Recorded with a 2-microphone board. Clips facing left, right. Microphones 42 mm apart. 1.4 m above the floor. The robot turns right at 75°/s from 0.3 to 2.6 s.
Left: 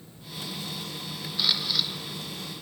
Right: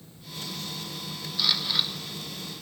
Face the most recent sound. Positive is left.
turn(degrees=-100)